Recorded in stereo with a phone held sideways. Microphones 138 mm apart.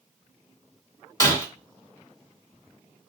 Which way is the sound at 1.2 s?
25° left (ahead or behind).